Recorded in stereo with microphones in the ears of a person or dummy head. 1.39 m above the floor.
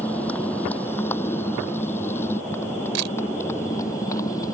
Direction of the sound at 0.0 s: 10° left (ahead or behind).